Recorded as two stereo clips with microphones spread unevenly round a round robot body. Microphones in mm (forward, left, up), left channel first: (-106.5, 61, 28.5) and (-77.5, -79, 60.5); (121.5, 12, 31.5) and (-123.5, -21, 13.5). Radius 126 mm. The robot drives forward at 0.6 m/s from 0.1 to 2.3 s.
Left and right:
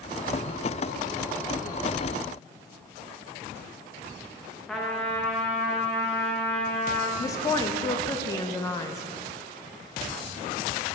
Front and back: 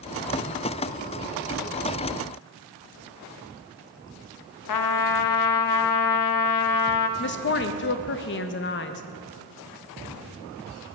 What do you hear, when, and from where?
4.7 s a trumpet: 15° left, 0.6 m
7.2 s a woman speaking: 45° left, 0.6 m